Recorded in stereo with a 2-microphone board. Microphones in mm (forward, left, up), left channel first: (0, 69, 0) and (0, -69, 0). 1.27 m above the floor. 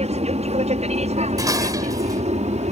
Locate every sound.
0.0 s an aircraft: 50° right (ahead or behind); by 2.7 s 55° right (ahead or behind)
1.4 s dishes clattering: 25° right (ahead or behind)